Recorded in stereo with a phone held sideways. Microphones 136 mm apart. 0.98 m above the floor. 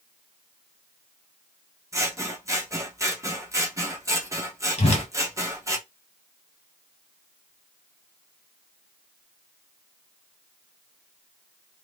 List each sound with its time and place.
1.9 s scissors: 20° right (ahead or behind), 0.9 m
4.8 s a whoosh: 50° left (ahead or behind), 1.0 m